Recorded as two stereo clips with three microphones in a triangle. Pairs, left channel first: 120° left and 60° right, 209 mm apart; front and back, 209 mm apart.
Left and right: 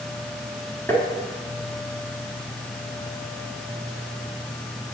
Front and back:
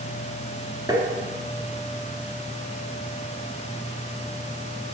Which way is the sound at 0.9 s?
175° left.